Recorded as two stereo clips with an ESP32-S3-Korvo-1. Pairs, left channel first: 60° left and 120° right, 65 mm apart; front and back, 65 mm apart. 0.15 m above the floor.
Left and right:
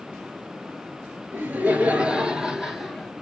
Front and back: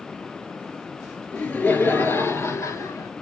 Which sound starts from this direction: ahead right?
Laughter, at 1.3 s.